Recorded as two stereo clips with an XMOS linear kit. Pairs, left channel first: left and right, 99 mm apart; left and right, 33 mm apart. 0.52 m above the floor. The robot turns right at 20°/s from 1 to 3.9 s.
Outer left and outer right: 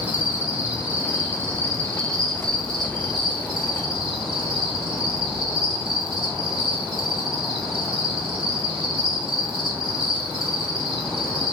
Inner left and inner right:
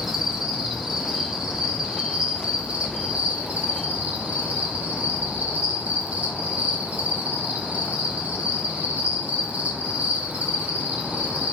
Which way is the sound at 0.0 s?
165° right.